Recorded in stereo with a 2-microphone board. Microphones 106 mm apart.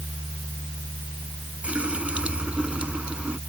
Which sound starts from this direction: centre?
A running tap, at 1.6 s.